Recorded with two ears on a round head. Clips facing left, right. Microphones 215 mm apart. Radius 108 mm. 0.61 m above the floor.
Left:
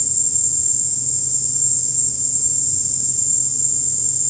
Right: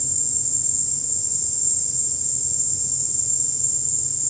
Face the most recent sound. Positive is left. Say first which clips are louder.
# left 2 dB
turn(degrees=10)  # may be behind; listen again after turning